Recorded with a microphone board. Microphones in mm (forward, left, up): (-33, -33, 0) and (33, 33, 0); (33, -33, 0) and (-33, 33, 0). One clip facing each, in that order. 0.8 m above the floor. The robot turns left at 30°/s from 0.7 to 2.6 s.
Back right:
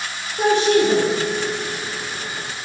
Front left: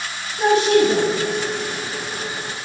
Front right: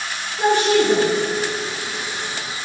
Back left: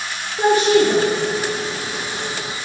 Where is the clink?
No clink in this recording.